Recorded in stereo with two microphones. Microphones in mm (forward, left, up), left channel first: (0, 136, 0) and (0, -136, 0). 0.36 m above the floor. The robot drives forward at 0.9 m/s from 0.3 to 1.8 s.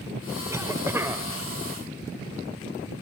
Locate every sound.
0.5 s a cough: 10° right (ahead or behind), 1.5 m